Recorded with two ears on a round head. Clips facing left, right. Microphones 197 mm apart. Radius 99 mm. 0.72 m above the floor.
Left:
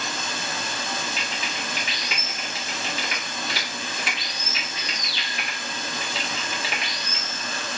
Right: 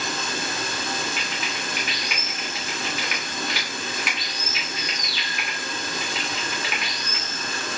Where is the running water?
45° right (ahead or behind), 1.0 m.